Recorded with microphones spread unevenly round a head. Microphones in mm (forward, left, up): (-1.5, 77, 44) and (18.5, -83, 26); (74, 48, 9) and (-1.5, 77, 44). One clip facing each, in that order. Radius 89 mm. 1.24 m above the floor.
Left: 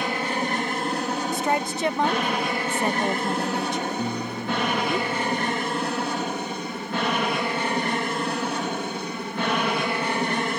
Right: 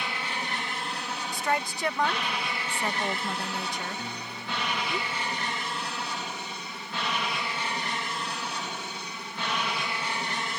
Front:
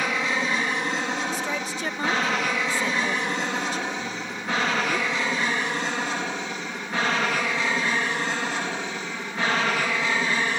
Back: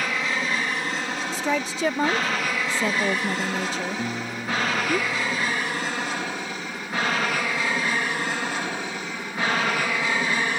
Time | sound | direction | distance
0.0 | an aircraft | 55° left | ?
1.3 | a woman speaking | 170° left | ?
4.0 | a guitar | 120° left | ?